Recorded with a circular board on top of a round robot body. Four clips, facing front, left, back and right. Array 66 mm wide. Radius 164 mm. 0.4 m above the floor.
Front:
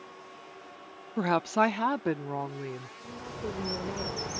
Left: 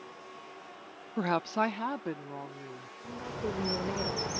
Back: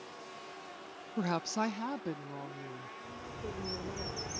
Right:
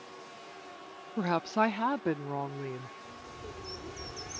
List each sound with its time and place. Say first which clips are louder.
1.2 s a woman speaking: right 1 dB, front 8 dB; 30° left; by 2.9 s 40° right
3.0 s a bird: left 9 dB, front 7 dB; 60° left